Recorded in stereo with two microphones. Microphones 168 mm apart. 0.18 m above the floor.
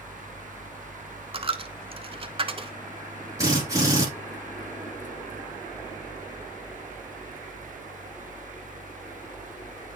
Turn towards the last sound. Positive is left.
turn(degrees=-20)  # may be behind; listen again after turning